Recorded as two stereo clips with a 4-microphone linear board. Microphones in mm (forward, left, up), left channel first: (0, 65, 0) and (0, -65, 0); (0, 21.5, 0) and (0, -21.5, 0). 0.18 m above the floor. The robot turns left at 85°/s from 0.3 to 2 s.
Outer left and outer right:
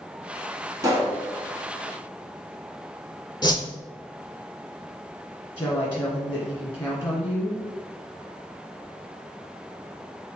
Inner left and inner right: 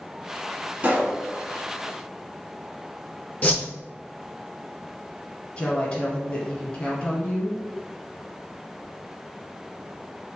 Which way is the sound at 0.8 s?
140° right.